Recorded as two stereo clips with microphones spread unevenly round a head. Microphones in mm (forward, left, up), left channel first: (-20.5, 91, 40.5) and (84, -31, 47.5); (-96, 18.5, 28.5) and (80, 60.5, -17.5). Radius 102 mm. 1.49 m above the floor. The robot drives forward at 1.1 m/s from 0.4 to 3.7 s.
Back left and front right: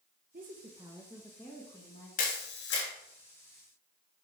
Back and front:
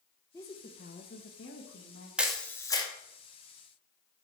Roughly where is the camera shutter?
Left.